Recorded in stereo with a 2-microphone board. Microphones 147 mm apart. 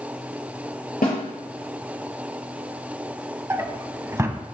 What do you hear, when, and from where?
1.0 s a snare drum: 75° left (ahead or behind), 3.5 m
3.5 s a drawer: 20° right (ahead or behind), 0.6 m